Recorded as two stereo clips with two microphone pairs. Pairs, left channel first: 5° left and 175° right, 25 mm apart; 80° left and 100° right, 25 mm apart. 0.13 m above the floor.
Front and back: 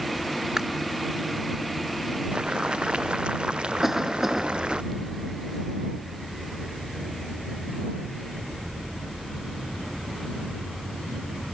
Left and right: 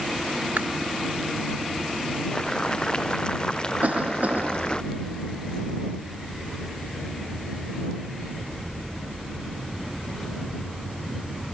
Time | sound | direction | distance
0.6 | chewing | 105° right | ?
2.3 | boiling | 135° left | ?
3.8 | a cough | 95° right | ?